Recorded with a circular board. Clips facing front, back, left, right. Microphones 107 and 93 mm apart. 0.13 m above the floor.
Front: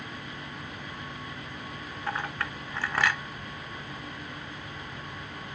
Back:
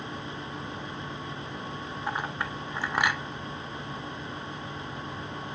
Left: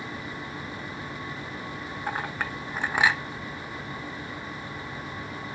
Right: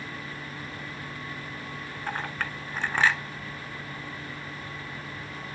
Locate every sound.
2.1 s a clink: 140° left, 0.8 m